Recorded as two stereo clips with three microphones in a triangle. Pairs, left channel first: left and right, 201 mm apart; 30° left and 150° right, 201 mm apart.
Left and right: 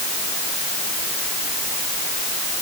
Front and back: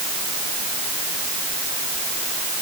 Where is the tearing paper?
I don't hear tearing paper.